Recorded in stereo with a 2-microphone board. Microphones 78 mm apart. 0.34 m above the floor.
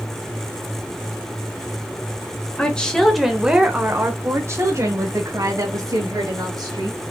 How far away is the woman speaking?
About 1.2 m.